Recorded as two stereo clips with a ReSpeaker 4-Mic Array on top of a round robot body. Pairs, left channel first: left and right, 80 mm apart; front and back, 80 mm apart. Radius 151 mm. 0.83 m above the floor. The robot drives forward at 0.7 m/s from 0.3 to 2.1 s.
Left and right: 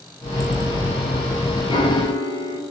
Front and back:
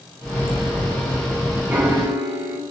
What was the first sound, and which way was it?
A piano, 110° left.